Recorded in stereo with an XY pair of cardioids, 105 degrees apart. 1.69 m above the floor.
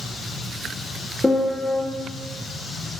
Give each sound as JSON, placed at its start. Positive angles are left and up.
{"t": 1.2, "sound": "a piano", "azimuth_deg": 10, "distance_m": 1.3}